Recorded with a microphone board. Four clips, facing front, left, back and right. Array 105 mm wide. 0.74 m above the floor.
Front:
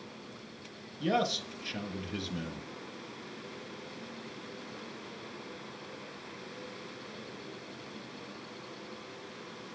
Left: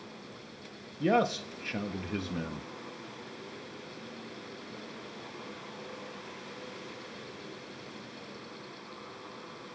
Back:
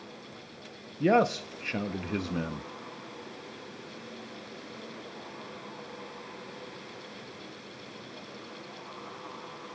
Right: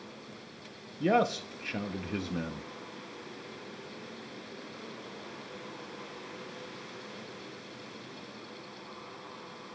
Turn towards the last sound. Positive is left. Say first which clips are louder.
# even, back 7 dB
turn(degrees=180)